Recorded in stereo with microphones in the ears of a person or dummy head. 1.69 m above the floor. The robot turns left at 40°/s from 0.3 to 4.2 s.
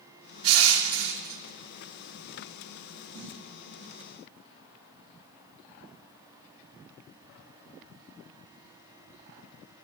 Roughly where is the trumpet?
I don't hear a trumpet.